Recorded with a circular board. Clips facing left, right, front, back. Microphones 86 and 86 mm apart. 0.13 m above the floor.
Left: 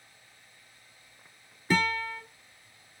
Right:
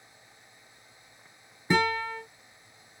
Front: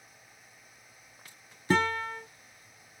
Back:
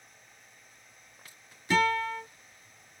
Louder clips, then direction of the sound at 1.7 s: Right 2 dB, back 1 dB; 30° right.